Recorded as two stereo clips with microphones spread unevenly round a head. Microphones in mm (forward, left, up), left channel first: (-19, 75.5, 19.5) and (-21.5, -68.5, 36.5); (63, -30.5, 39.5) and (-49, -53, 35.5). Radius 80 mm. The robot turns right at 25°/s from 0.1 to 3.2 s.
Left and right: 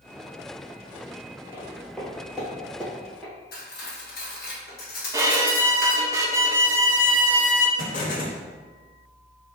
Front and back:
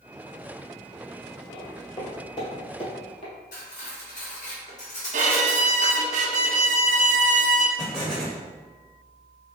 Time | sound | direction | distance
1.5 | footsteps | 5° left | 1.3 m
3.5 | cutlery clinking | 50° left | 1.1 m
5.1 | a violin | 160° right | 0.8 m
7.8 | an explosion | 95° left | 1.0 m